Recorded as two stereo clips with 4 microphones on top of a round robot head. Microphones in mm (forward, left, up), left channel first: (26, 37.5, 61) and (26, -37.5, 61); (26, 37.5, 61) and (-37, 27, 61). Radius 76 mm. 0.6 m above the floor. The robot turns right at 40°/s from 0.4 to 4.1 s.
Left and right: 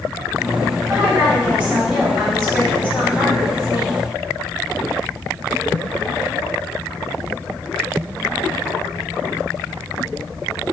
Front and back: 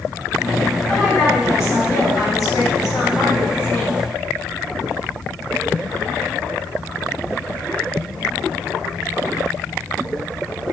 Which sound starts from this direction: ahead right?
A woman speaking, at 0.9 s.